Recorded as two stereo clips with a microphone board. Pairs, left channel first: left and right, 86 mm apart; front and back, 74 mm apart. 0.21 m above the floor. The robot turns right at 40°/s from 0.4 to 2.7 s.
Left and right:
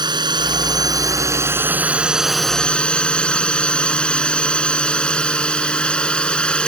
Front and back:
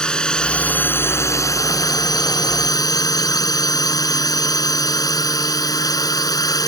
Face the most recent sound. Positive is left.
turn(degrees=15)